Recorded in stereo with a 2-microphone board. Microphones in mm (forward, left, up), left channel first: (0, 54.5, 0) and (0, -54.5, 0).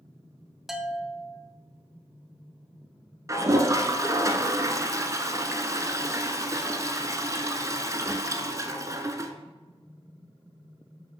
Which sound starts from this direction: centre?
A bell, at 0.7 s.